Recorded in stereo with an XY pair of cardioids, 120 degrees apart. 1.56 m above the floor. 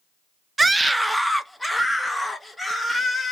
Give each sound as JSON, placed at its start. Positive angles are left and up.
{"t": 0.6, "sound": "a scream", "azimuth_deg": -15, "distance_m": 0.5}